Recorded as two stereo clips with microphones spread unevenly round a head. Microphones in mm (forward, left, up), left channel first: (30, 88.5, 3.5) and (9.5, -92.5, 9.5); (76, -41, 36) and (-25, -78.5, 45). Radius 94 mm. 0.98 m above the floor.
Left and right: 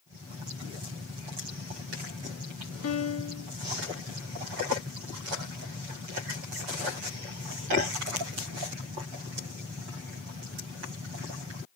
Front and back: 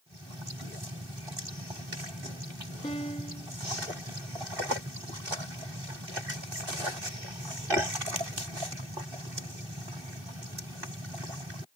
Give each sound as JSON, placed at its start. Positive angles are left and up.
{"t": 2.8, "sound": "a piano", "azimuth_deg": 85, "distance_m": 0.8}